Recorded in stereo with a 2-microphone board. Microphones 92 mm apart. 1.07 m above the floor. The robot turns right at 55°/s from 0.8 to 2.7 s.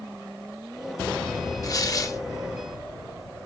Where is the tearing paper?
85° left, 0.8 m; by 2.2 s 115° left, 0.8 m.